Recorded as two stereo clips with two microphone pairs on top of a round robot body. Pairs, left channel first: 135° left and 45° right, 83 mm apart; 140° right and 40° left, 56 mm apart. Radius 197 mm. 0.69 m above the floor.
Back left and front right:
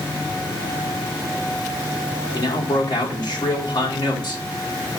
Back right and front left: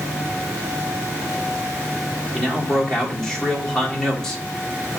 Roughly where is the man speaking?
Behind left.